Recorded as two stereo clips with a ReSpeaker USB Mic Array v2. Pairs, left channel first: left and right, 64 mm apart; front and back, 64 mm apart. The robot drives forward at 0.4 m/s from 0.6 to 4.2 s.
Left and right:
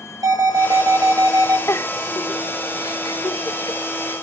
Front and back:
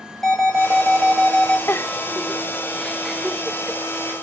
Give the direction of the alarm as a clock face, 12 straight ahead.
3 o'clock.